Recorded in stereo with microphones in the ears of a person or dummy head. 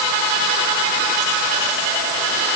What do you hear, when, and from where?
Only background noise.